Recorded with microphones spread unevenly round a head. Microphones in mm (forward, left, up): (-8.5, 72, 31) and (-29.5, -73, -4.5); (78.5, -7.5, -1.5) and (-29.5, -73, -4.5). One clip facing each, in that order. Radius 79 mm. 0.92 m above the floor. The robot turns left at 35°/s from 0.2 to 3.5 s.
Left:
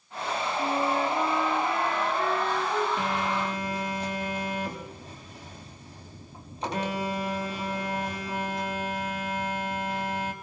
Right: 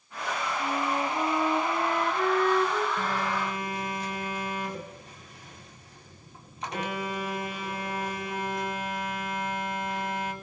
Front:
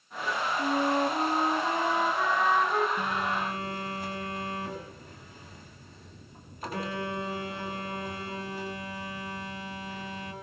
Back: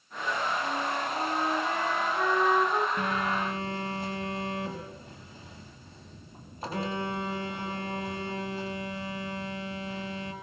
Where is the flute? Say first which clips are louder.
Left 3 dB, front 5 dB; straight ahead, 2 m; by 2.9 s 80° right, 2 m.